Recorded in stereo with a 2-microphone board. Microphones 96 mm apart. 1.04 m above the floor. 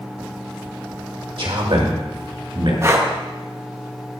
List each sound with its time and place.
1.4 s a man speaking: 65° right (ahead or behind), 1.9 m
2.8 s breathing: 30° right (ahead or behind), 0.8 m